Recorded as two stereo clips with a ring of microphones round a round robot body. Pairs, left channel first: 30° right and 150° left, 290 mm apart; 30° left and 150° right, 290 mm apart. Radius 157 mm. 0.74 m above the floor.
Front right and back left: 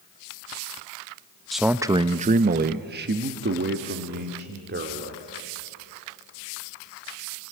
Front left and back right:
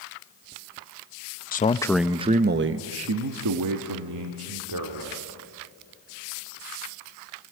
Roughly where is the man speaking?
Ahead left.